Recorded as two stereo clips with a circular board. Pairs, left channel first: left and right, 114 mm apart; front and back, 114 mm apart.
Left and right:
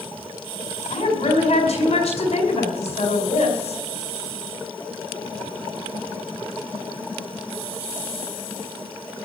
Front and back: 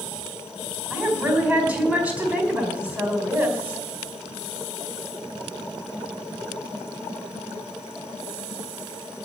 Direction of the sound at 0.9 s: 105° left.